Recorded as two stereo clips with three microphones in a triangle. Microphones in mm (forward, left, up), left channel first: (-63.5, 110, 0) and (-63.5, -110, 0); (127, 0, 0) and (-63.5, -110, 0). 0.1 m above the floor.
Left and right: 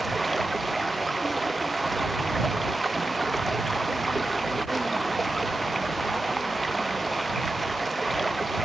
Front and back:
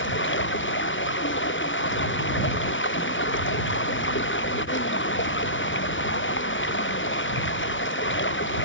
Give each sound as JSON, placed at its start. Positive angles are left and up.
{"t": 0.0, "sound": "running water", "azimuth_deg": 0}